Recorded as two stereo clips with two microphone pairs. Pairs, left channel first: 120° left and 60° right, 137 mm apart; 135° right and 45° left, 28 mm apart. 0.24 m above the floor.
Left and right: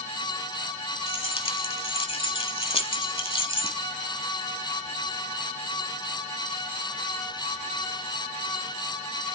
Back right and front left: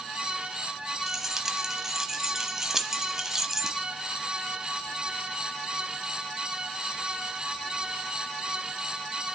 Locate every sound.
1.1 s keys jangling: 115° left, 1.0 m